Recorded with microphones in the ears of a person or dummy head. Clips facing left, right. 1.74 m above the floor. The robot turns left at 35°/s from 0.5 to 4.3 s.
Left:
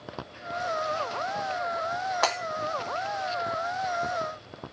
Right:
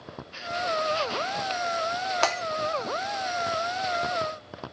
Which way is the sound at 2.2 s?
30° right (ahead or behind).